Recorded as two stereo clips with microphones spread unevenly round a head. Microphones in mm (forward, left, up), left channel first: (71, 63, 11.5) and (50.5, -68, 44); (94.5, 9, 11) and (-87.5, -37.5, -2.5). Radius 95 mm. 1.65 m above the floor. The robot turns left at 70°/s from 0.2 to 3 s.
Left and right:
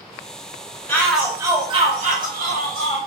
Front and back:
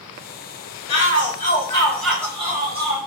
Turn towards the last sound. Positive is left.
turn(degrees=-140)